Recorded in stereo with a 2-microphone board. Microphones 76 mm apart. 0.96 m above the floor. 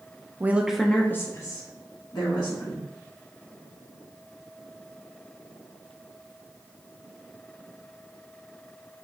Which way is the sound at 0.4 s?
25° right (ahead or behind).